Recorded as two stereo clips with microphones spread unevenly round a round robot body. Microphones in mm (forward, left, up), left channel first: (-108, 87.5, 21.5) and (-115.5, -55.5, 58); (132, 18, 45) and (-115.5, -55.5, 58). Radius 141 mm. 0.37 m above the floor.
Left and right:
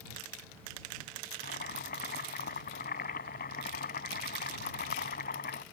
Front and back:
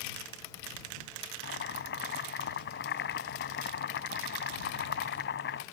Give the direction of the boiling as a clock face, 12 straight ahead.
10 o'clock.